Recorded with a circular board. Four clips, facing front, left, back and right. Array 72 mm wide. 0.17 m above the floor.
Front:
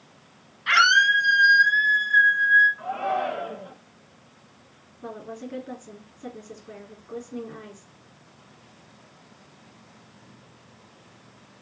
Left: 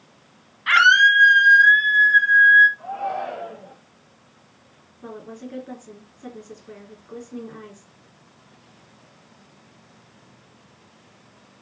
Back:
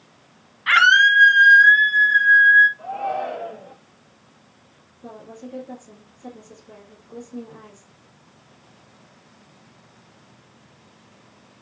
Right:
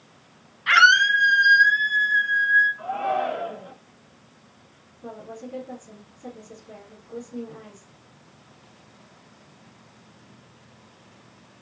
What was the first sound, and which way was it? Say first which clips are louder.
A scream: left 2 dB, back 4 dB; 155° left.